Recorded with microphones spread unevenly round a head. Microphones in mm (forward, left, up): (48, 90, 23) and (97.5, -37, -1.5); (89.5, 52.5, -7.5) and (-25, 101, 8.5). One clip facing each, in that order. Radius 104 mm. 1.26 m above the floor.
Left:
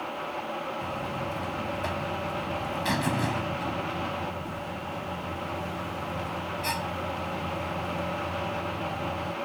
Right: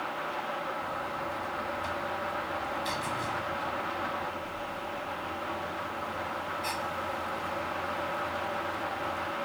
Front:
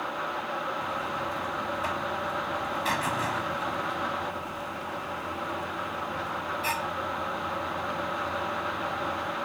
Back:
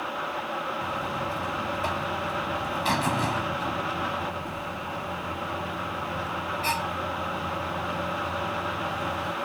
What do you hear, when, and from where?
0.8 s a buzzer: 100° left